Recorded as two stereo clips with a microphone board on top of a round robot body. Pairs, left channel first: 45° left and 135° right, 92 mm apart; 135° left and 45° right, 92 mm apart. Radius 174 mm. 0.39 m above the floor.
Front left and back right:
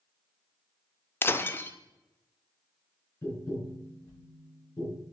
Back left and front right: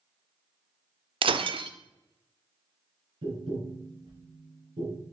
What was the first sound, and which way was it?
Breaking glass, 20° right.